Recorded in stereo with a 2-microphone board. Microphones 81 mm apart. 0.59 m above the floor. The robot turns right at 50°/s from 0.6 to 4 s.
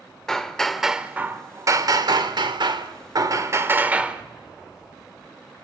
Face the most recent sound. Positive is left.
turn(degrees=-15)